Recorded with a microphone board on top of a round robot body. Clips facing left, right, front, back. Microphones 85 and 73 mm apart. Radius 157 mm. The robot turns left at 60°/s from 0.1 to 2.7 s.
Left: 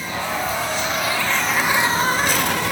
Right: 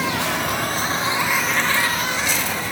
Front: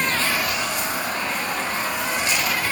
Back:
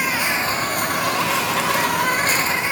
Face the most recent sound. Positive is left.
turn(degrees=105)